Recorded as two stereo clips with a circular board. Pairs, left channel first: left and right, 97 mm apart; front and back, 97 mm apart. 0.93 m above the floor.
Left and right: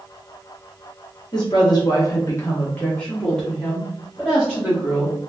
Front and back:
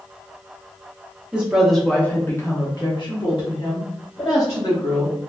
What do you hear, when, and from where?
1.3 s a woman speaking: 105° left, 1.0 m; by 5.2 s 10° right, 2.5 m